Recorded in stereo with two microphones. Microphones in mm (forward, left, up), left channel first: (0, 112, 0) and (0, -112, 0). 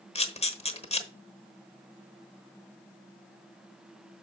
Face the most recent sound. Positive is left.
turn(degrees=30)  # may be behind; listen again after turning